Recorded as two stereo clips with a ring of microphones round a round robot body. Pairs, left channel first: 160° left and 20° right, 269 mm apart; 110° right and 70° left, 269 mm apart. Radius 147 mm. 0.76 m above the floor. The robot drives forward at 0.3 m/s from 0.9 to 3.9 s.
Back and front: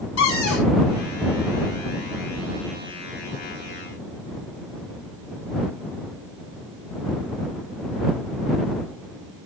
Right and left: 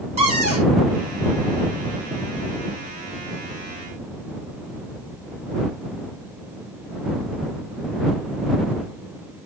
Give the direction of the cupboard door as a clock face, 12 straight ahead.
8 o'clock.